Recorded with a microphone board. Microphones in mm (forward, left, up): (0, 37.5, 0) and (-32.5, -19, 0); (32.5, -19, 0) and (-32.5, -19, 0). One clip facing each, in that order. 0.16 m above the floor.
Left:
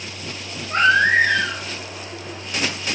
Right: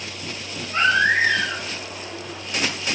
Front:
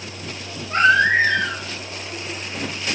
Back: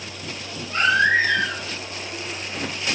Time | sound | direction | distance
0.7 | a baby crying | 35° left | 5.5 m